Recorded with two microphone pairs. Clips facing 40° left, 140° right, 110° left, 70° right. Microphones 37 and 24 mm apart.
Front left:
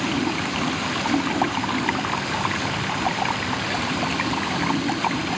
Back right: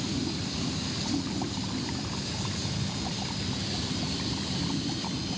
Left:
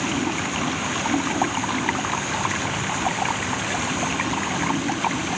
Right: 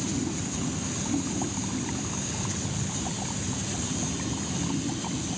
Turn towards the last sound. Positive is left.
turn(degrees=75)